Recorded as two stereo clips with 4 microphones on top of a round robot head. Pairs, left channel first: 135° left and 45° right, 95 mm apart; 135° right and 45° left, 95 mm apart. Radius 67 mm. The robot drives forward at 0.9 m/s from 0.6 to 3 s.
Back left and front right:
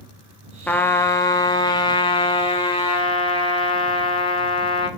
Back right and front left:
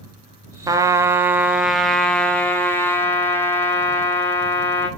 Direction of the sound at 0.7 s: 65° left.